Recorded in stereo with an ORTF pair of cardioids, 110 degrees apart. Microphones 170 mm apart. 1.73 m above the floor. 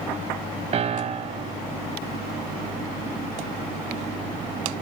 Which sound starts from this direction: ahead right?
A piano, at 0.7 s.